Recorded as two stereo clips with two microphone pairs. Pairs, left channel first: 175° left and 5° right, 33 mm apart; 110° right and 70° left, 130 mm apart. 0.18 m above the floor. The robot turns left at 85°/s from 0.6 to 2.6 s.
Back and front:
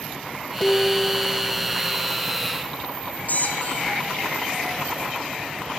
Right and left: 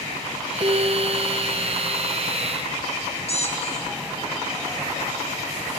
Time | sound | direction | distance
0.6 | dishes clattering | 120° left | 2.5 m
3.3 | a squeak | 150° right | 3 m